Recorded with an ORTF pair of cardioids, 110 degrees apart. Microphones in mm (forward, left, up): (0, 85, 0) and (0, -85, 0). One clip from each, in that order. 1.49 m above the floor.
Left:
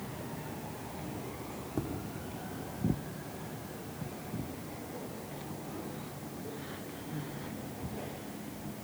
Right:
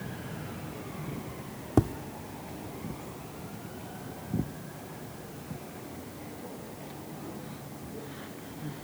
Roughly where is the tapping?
Ahead right.